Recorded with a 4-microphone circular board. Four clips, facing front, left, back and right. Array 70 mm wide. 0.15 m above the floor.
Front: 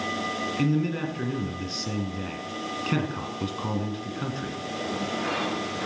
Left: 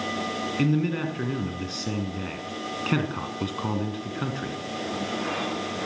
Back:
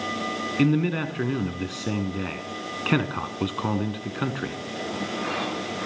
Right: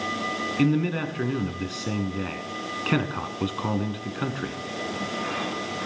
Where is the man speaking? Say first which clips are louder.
Right 1 dB, back 4 dB; 170° right, 1.6 m.